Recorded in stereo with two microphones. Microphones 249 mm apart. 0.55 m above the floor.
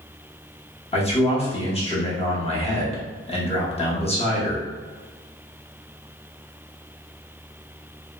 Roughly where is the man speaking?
Left.